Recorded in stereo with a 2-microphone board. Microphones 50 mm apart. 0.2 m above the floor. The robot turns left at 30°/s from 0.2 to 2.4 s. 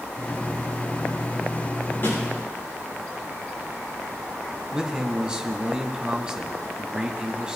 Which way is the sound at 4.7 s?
15° right (ahead or behind).